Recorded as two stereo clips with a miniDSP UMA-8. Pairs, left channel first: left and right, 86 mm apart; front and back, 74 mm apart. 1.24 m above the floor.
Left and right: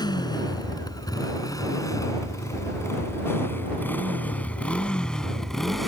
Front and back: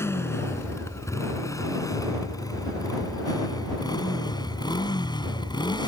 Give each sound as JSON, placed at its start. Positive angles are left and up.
{"t": 0.0, "sound": "a motorcycle", "azimuth_deg": 55}